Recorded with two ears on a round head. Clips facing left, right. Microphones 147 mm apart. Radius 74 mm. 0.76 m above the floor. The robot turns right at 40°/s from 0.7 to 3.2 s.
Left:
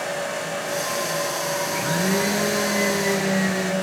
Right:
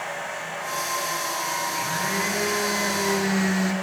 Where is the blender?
110° left, 3.5 m; by 3.7 s 170° left, 3.5 m.